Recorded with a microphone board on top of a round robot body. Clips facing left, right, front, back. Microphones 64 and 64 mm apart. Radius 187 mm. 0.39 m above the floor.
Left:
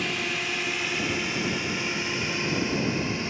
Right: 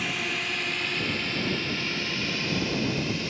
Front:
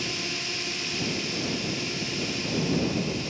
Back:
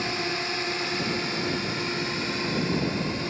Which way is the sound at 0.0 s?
Straight behind.